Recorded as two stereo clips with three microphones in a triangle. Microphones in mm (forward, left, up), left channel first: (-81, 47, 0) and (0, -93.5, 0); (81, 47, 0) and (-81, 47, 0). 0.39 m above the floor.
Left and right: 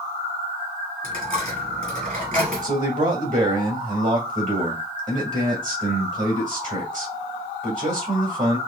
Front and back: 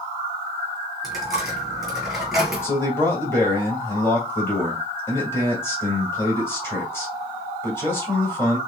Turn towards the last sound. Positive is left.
turn(degrees=-70)